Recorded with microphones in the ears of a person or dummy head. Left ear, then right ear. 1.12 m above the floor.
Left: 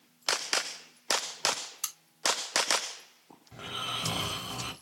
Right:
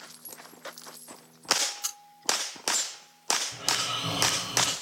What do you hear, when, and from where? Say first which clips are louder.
1.8 s a crack: right 3 dB; 45° left (ahead or behind), 4 m
3.5 s snoring: right 6 dB; 45° left (ahead or behind), 4.5 m